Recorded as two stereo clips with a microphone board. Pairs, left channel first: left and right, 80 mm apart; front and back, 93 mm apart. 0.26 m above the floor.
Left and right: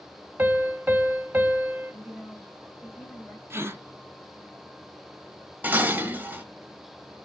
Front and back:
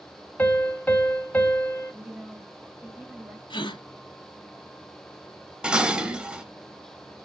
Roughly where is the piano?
Ahead right.